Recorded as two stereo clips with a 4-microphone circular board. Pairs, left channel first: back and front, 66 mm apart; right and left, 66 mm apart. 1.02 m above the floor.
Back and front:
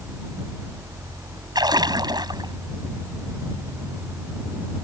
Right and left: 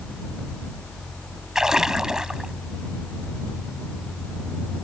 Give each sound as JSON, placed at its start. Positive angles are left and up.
{"t": 1.6, "sound": "a splash", "azimuth_deg": 10}